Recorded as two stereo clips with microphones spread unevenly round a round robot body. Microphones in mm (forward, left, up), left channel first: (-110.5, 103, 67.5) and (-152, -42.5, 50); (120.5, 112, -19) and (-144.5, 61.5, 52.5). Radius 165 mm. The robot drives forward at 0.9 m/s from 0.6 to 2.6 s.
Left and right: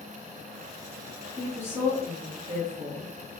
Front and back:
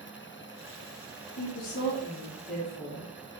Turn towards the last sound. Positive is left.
turn(degrees=-50)